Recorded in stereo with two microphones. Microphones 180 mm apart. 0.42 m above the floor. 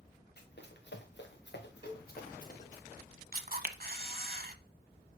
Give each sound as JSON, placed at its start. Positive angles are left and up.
{"t": 0.4, "sound": "running footsteps", "side_deg": 65, "distance_m": 3.0}
{"t": 1.8, "sound": "a cowbell", "side_deg": -30, "distance_m": 1.0}
{"t": 3.3, "sound": "a camera shutter", "side_deg": -55, "distance_m": 0.8}